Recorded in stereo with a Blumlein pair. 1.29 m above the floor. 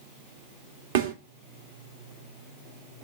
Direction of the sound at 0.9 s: 55° right.